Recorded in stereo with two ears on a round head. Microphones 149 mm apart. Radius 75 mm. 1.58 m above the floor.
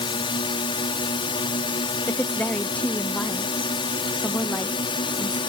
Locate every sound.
0.0 s a drone: 30° left (ahead or behind)
2.1 s a woman speaking: 10° left (ahead or behind)